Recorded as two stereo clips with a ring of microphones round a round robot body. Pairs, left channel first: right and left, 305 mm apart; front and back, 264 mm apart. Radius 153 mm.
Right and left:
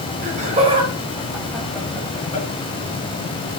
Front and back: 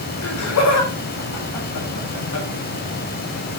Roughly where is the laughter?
Ahead left.